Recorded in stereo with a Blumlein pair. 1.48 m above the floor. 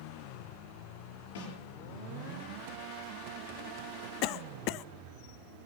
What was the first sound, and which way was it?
A snare drum, 60° left.